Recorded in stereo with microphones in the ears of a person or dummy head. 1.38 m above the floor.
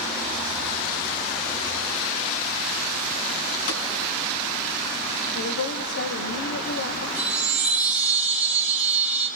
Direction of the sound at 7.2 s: 5° right (ahead or behind).